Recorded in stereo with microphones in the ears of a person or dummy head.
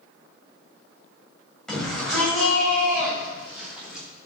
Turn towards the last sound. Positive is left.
turn(degrees=0)  # may be behind; listen again after turning